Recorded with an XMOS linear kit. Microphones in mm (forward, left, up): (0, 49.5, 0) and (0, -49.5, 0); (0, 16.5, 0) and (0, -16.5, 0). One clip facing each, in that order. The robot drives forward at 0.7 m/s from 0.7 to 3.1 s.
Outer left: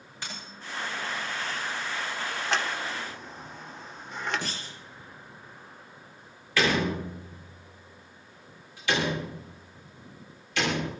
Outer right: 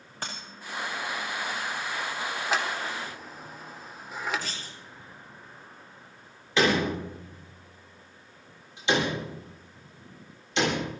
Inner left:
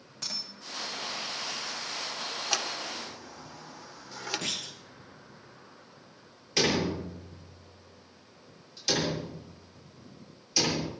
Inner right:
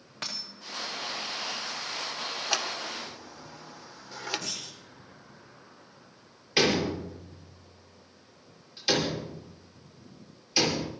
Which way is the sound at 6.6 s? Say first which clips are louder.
Outer right 2 dB, inner right 2 dB; 25° right (ahead or behind).